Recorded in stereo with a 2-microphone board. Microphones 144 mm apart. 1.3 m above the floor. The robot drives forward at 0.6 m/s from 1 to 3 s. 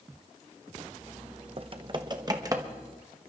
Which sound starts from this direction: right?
Typing on a keyboard, at 1.6 s.